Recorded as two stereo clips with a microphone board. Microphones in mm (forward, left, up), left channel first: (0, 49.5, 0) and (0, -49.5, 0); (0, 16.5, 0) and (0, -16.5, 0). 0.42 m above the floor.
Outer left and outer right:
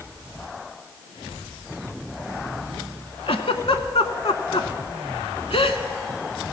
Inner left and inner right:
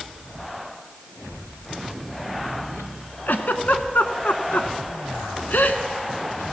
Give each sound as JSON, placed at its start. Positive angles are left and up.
{"t": 3.3, "sound": "a giggle", "side_deg": 75, "distance_m": 0.8}